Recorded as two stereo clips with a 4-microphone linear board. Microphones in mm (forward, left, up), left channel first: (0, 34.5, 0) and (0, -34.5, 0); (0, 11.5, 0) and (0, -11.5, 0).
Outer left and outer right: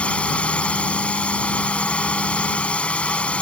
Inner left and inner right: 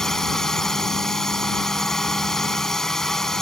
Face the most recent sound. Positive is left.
turn(degrees=15)  # may be behind; listen again after turning